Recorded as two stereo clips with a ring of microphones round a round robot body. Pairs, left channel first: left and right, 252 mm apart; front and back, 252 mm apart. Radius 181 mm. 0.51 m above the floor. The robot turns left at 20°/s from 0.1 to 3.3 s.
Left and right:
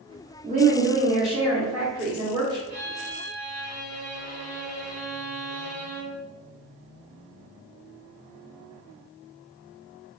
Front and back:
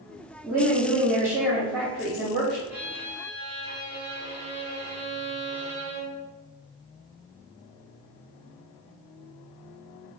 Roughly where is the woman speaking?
Right.